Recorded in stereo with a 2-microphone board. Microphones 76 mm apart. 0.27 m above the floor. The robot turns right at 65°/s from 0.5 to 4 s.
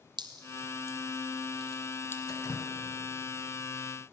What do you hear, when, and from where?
0.2 s dripping: 75° right (ahead or behind), 1.3 m; by 2.2 s 35° left (ahead or behind), 1.3 m
2.3 s dripping: 50° left (ahead or behind), 1.7 m; by 2.7 s 35° left (ahead or behind), 1.7 m